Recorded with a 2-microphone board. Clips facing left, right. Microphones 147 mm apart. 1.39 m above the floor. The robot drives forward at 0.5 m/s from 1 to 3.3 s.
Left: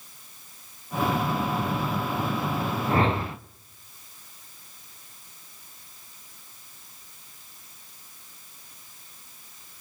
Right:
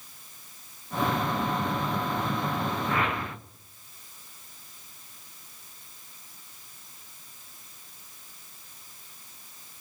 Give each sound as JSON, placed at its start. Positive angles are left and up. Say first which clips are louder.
{"t": 2.9, "sound": "a whoosh", "louder": "left 5 dB", "side_deg": 35, "distance_m": 0.6}